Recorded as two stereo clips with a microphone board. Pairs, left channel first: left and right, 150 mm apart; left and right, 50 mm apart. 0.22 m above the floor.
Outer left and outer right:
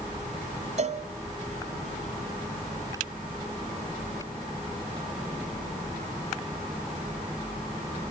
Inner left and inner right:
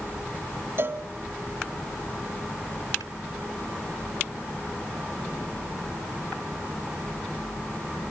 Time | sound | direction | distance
0.8 | a cowbell | 50° right (ahead or behind) | 1.1 m